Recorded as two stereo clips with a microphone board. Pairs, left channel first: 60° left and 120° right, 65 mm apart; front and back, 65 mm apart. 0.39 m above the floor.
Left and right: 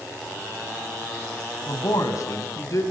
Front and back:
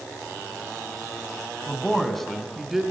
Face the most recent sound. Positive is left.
turn(degrees=95)